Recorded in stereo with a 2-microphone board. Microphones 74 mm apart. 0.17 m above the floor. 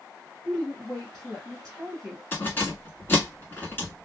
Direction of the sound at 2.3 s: 30° left (ahead or behind).